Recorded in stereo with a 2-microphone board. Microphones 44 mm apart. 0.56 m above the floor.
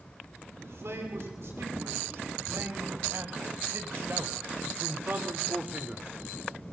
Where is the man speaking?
75° right (ahead or behind), 7 m; by 6.1 s 20° right (ahead or behind), 1.4 m.